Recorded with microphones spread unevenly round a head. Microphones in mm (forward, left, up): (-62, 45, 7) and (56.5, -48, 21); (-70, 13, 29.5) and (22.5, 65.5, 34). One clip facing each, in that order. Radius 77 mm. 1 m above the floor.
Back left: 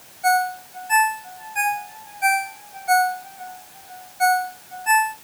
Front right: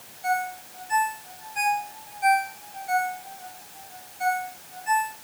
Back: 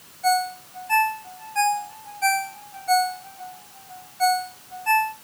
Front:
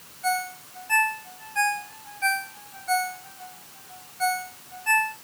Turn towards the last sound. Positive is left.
turn(degrees=155)